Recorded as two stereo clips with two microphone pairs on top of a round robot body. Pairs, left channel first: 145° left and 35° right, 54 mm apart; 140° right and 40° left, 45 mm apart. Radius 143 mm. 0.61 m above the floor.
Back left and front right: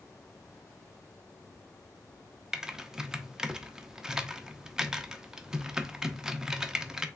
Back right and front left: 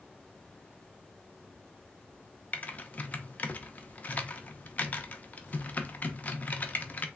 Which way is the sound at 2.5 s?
110° right.